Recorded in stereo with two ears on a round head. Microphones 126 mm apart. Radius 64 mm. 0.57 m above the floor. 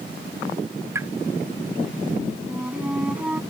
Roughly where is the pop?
Centre.